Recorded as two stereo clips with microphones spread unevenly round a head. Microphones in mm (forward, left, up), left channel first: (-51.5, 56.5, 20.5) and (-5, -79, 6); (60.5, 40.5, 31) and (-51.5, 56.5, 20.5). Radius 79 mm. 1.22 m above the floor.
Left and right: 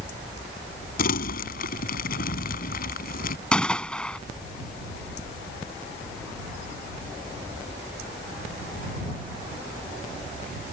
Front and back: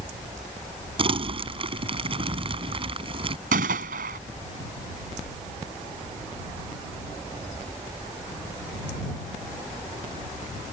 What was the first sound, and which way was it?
Crumpling, 130° left.